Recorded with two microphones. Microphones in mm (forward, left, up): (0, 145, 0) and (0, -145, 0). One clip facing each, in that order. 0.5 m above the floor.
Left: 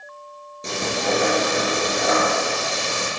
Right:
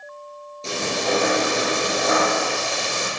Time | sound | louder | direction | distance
0.6 | frying | even | 20° left (ahead or behind) | 2.5 m